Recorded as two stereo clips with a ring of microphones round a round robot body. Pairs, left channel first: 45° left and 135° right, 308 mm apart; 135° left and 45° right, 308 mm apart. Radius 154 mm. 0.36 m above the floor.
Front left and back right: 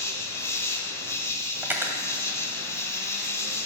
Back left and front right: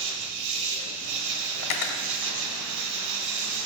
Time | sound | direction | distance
0.0 | an insect | 35° right | 1.2 m
1.6 | cutlery clinking | 140° left | 1.1 m